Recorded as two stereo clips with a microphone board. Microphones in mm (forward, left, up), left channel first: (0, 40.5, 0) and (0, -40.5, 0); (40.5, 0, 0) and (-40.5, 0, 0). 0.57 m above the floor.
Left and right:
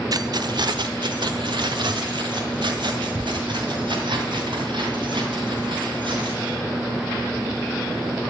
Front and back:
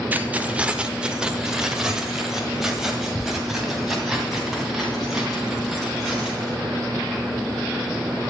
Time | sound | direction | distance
0.1 | keys jangling | 115° right | 0.6 m